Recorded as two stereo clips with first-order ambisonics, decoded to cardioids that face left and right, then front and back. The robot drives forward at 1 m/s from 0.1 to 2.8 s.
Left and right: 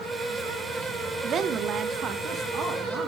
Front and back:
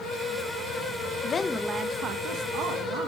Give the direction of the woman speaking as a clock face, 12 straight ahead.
1 o'clock.